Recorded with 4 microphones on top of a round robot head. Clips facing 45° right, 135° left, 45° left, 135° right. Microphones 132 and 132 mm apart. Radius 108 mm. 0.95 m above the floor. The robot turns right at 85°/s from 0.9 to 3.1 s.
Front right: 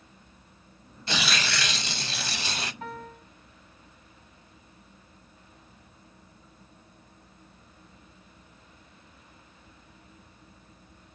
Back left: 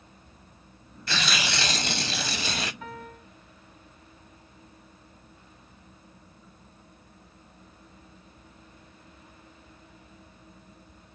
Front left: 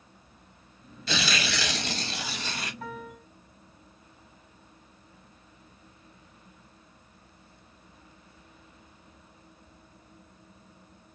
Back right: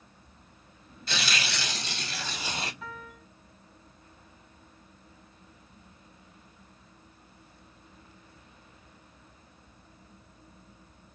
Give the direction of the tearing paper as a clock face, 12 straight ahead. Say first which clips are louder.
Even, front left 4 dB; 11 o'clock.